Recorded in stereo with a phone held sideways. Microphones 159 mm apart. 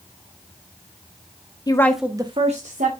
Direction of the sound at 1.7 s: 25° left (ahead or behind).